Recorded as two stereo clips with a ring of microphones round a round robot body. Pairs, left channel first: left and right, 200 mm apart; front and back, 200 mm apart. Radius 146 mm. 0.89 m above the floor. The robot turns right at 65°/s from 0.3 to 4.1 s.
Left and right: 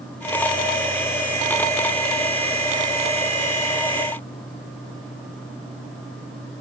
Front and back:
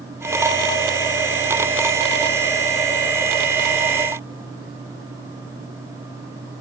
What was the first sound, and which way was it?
Only background noise.